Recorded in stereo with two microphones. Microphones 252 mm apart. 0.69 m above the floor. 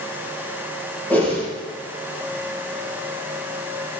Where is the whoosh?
5° left (ahead or behind), 5.5 m.